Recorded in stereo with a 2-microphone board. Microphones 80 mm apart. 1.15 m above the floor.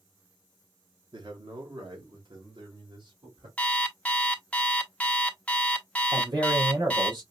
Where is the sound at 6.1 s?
75° right (ahead or behind), 3 m.